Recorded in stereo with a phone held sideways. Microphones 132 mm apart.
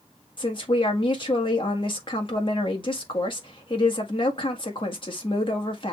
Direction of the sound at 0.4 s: 40° left (ahead or behind).